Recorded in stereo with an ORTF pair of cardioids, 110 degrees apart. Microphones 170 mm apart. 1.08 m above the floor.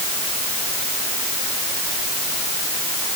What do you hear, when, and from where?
Only background noise.